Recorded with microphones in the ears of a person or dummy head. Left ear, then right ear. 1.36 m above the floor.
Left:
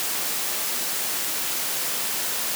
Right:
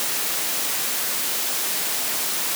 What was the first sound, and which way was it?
Only background noise.